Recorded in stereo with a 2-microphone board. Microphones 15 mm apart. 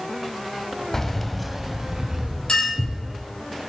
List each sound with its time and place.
0.9 s keys jangling: 25° left (ahead or behind), 0.7 m; by 3.0 s 20° right (ahead or behind), 2.5 m
2.5 s a clink: 60° left (ahead or behind), 4 m